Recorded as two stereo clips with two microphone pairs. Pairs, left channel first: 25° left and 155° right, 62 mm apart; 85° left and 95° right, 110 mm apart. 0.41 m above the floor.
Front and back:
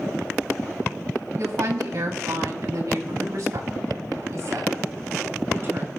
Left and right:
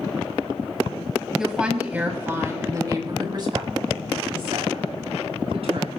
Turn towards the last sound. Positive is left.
turn(degrees=-115)